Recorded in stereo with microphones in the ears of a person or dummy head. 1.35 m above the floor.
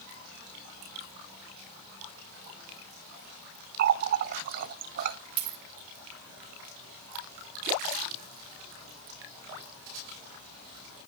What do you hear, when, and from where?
3.8 s a running tap: 50° right (ahead or behind), 0.6 m
5.4 s a dropped coin: 25° right (ahead or behind), 3 m